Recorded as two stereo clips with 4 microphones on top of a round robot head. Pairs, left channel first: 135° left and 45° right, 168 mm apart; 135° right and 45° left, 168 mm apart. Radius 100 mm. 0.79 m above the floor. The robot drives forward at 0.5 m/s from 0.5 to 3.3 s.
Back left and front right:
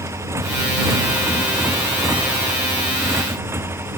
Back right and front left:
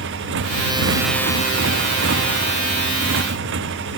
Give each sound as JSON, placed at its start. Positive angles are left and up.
{"t": 0.0, "sound": "a motorcycle", "azimuth_deg": 30}